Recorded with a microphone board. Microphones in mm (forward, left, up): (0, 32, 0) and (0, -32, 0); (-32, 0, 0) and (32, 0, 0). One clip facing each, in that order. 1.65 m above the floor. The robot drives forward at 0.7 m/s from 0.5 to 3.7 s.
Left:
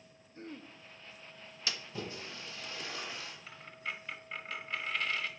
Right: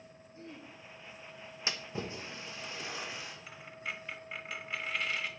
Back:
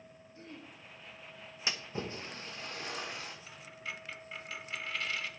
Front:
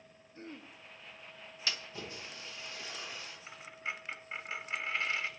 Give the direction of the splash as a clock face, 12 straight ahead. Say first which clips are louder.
Right 2 dB, back 3 dB; 4 o'clock.